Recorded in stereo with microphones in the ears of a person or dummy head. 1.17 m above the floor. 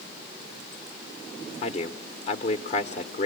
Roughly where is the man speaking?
Left.